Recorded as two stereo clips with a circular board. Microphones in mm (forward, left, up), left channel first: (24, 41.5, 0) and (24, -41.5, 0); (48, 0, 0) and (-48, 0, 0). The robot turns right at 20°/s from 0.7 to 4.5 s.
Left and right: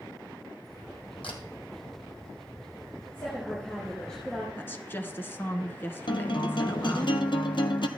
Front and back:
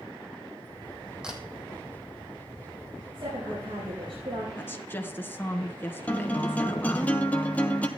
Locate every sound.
1.2 s a camera shutter: 100° left, 2 m
3.1 s a woman speaking: 150° left, 4.5 m; by 4.5 s straight behind, 4.5 m
4.6 s a woman speaking: 50° left, 1.3 m
6.1 s a guitar: 75° left, 1.0 m